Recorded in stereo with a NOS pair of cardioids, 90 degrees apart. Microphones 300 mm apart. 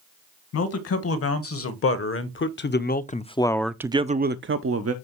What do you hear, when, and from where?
0.5 s a man speaking: 60° left, 2.0 m; by 4.9 s 65° right, 0.8 m